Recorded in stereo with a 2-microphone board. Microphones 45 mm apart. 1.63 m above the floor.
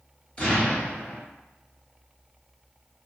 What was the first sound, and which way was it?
An explosion, 25° left (ahead or behind).